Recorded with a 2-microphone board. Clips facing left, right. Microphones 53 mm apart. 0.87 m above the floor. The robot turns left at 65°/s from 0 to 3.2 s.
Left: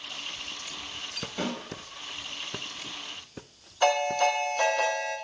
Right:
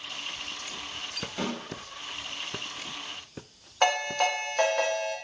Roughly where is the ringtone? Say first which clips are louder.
Left 2 dB; right.